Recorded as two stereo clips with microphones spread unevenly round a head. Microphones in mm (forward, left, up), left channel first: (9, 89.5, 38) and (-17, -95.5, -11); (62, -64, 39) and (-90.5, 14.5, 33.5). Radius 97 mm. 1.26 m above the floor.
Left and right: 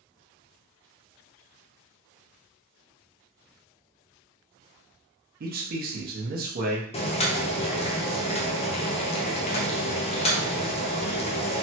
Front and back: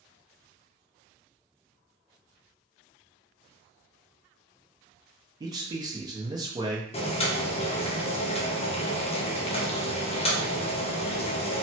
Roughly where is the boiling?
Ahead.